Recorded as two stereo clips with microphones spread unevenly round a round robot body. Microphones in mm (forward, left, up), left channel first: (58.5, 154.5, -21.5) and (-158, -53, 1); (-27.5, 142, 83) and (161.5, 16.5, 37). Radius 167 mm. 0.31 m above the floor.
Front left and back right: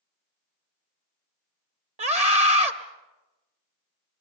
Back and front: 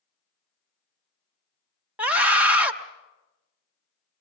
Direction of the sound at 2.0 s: 85° right.